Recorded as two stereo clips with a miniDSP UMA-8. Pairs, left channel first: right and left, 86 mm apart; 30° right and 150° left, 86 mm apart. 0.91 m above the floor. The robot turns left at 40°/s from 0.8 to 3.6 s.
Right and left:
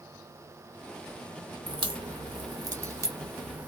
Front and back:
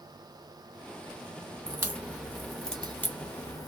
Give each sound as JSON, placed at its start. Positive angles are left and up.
{"t": 1.7, "sound": "a crack", "azimuth_deg": 95, "distance_m": 0.9}